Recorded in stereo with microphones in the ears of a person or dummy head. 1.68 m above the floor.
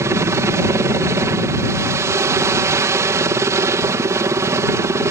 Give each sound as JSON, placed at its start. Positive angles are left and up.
{"t": 0.0, "sound": "a helicopter", "side_deg": -20}